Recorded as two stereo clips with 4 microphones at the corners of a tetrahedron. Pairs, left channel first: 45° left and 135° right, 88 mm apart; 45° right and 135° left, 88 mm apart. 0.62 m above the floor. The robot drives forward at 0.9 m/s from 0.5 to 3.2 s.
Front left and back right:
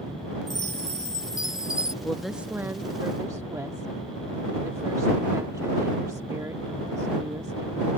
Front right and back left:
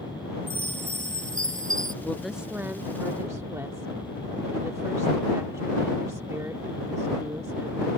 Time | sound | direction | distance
0.5 | a chime | 75° left | ?
2.0 | a woman speaking | 5° right | ?